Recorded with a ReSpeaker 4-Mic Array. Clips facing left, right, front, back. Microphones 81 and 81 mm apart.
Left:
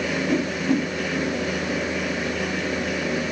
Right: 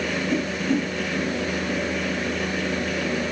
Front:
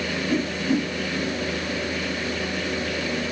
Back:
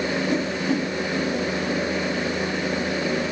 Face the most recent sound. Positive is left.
turn(degrees=115)